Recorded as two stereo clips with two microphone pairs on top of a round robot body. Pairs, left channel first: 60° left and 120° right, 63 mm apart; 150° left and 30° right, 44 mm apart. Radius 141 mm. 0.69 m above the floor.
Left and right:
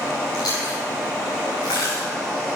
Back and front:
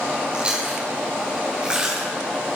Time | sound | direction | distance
0.3 | chewing | 40° left | 5 m